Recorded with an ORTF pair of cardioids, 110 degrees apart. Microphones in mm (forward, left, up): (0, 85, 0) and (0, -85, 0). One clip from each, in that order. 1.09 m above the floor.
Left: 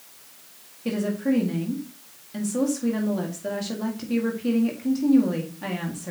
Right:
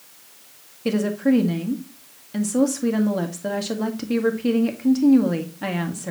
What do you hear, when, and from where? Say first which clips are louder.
0.8 s a woman speaking: right 5 dB; 30° right, 1.8 m